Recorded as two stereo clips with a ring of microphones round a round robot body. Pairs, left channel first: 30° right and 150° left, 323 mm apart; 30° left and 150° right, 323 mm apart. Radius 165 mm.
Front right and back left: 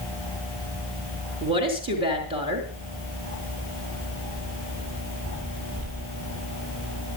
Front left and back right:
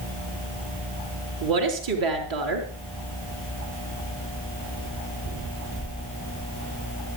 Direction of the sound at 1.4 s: 135° right.